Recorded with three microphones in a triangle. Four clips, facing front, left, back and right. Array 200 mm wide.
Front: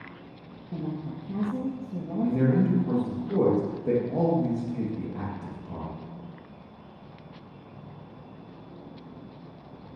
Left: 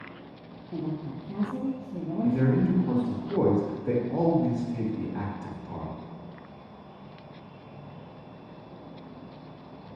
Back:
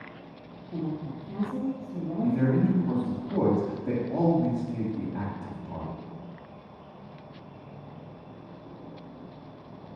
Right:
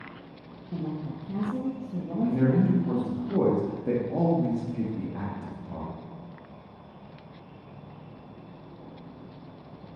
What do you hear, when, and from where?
0.7 s a woman speaking: 40° right, 1.9 m
2.2 s a man speaking: 55° right, 1.8 m